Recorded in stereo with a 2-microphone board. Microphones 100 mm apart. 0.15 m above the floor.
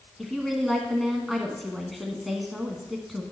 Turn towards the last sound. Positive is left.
turn(degrees=0)  # may be behind; listen again after turning